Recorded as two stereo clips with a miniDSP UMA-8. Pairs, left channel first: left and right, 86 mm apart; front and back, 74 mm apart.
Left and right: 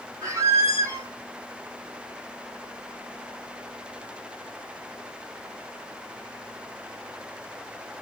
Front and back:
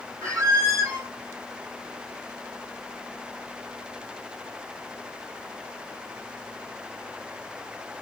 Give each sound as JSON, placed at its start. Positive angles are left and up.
{"t": 0.2, "sound": "a squeak", "azimuth_deg": -140, "distance_m": 1.3}